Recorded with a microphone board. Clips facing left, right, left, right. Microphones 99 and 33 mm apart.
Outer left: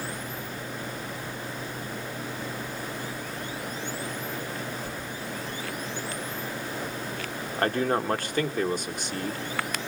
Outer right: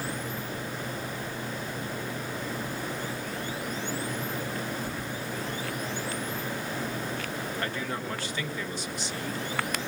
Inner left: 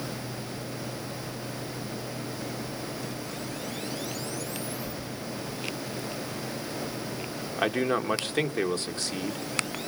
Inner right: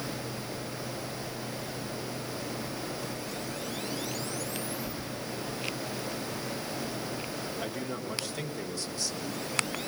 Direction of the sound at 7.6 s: 50° left (ahead or behind).